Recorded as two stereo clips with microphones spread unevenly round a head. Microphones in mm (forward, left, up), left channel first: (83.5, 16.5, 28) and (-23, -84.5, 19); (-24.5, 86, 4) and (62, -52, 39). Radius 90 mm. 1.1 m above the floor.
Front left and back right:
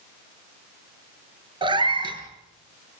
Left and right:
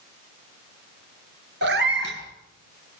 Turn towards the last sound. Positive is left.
turn(degrees=-80)